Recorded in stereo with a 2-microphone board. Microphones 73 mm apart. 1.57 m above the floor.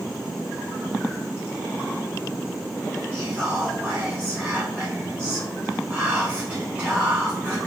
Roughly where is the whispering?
Centre.